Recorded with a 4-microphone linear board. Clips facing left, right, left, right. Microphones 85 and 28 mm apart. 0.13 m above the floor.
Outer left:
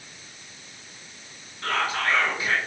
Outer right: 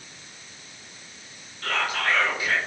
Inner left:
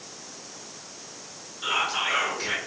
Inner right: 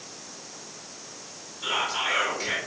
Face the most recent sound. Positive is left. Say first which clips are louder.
# outer left 1 dB, inner left 1 dB
turn(degrees=30)  # may be behind; listen again after turning